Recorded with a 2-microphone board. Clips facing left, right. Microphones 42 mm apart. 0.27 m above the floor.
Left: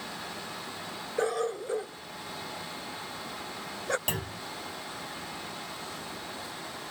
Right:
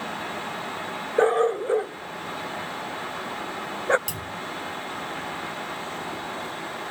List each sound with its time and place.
1.2 s a dog barking: 35° right (ahead or behind)
4.1 s a clunk: 45° left (ahead or behind)